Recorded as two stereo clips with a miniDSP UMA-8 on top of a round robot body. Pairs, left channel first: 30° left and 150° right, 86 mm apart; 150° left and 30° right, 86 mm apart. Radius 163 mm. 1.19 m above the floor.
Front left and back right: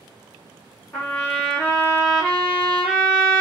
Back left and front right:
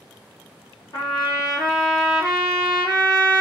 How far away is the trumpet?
About 0.6 m.